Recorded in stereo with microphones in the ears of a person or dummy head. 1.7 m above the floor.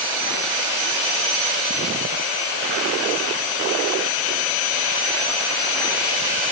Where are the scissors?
No scissors in this recording.